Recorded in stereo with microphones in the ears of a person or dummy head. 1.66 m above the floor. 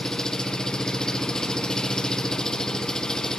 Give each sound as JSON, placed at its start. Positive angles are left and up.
{"t": 0.0, "sound": "an engine running", "side_deg": 5, "distance_m": 1.4}